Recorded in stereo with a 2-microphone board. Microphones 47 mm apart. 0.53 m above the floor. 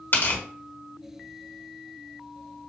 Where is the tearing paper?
50° left (ahead or behind), 2.0 m.